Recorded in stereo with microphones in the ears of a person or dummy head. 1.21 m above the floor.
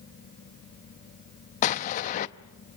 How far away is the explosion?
About 0.7 m.